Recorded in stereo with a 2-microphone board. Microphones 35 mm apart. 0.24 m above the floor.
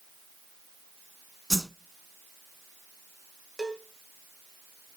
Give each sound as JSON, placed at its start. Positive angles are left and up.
{"t": 1.5, "sound": "a whoosh", "side_deg": -5, "distance_m": 0.6}
{"t": 3.6, "sound": "a cowbell", "side_deg": 10, "distance_m": 1.8}